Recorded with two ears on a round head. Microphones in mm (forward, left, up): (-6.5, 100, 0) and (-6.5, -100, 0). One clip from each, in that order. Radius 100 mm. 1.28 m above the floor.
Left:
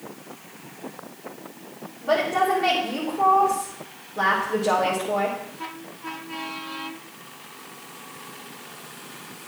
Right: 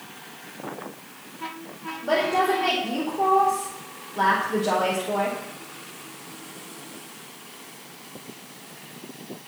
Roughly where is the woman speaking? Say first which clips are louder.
Left 1 dB; centre.